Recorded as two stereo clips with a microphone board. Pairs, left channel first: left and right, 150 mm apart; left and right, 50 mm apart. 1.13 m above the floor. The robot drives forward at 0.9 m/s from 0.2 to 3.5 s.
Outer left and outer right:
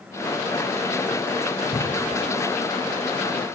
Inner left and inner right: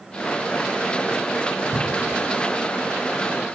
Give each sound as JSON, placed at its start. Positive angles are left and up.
{"t": 1.7, "sound": "a cupboard door", "side_deg": 20, "distance_m": 8.0}